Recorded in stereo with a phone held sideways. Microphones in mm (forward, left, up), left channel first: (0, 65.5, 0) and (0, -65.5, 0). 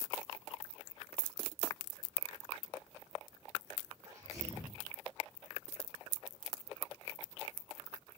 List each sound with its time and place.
4.0 s a sneeze: 25° right (ahead or behind), 2.5 m